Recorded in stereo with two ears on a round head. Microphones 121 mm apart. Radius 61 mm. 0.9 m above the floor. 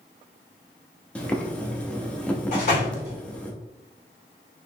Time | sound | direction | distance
1.1 | boiling | 10° left (ahead or behind) | 0.6 m
2.5 | a door slam | 55° left (ahead or behind) | 2 m